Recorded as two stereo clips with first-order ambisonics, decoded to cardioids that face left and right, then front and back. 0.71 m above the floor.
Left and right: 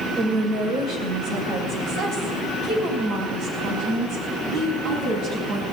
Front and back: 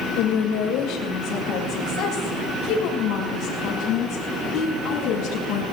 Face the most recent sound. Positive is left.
turn(degrees=-50)